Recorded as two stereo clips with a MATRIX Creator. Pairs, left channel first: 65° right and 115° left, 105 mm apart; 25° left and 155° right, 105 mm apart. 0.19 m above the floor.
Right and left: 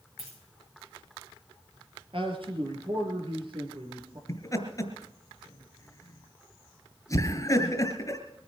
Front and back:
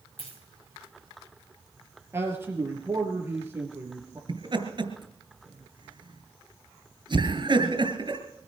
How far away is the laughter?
About 3 m.